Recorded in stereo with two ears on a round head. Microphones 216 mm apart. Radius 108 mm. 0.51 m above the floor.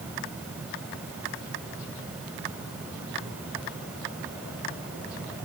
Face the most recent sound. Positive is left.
No sound to turn to.